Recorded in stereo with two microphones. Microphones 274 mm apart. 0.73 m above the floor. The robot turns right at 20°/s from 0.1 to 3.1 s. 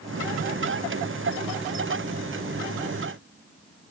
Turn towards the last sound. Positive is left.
No sound to turn to.